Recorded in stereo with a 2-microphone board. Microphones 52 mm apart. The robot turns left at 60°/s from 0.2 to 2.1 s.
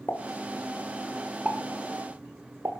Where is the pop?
50° left (ahead or behind), 3 m; by 2.7 s 65° right (ahead or behind), 3 m.